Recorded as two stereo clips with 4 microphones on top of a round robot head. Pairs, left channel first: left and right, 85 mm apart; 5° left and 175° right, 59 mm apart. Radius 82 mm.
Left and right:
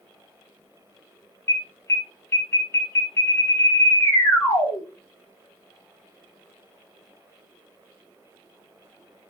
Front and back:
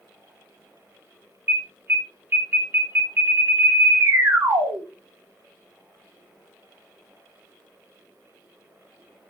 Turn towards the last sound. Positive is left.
turn(degrees=145)